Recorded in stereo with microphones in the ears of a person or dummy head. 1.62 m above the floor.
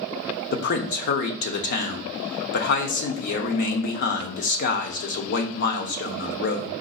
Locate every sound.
0.5 s a man speaking: 60° left (ahead or behind), 0.6 m